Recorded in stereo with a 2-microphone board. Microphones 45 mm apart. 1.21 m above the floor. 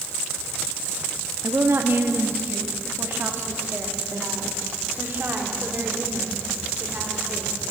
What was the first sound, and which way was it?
A woman speaking, 60° right (ahead or behind).